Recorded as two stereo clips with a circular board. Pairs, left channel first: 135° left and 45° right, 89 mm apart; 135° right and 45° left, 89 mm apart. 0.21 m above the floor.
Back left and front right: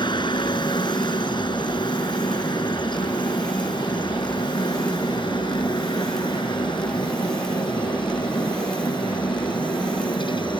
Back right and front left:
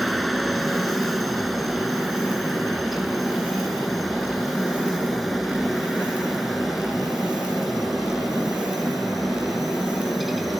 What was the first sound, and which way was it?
A helicopter, 135° left.